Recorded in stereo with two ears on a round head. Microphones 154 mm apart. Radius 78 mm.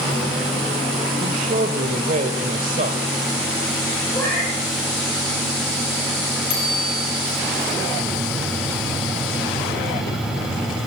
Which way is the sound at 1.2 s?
45° right (ahead or behind).